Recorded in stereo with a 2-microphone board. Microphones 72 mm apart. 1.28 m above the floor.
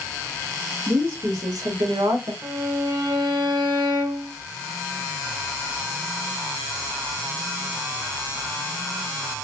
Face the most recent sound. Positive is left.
turn(degrees=-70)  # may be behind; listen again after turning